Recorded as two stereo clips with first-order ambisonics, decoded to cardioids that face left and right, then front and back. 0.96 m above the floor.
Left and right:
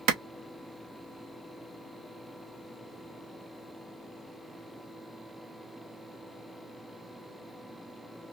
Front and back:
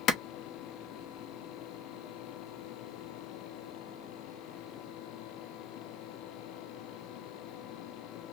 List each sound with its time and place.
0.1 s a clap: 55° right, 0.7 m